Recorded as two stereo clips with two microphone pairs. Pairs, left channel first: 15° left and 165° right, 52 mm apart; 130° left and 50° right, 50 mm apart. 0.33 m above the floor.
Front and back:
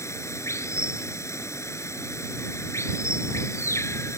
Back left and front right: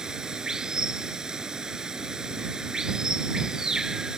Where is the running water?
25° left.